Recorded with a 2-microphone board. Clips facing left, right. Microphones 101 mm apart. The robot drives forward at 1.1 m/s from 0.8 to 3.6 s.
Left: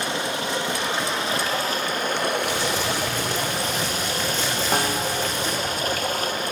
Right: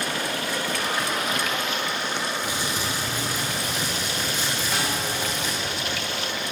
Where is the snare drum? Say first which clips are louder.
Left 6 dB; 50° left (ahead or behind), 2.5 m.